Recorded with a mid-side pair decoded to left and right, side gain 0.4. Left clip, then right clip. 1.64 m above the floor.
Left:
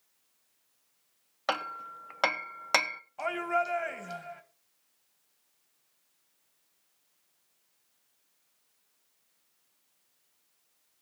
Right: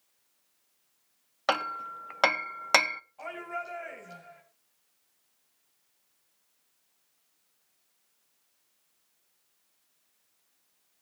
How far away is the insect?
I don't hear an insect.